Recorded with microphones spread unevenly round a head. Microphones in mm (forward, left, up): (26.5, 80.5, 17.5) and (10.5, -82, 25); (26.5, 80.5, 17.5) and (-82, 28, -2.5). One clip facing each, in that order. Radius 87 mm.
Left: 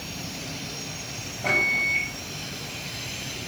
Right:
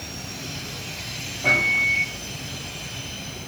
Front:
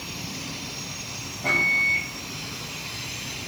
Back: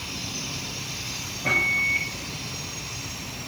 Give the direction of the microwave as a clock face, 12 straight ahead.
12 o'clock.